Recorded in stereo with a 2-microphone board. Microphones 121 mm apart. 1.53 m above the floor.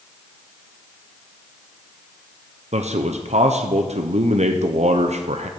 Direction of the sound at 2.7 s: 65° right (ahead or behind).